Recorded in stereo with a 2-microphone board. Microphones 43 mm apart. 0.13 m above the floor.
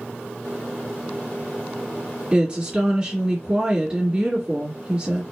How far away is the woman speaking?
About 1.6 m.